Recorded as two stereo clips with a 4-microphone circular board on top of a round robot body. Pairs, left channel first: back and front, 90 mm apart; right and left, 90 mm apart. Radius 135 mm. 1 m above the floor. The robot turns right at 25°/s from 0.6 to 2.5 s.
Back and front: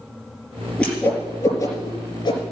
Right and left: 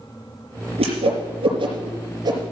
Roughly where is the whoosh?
Left.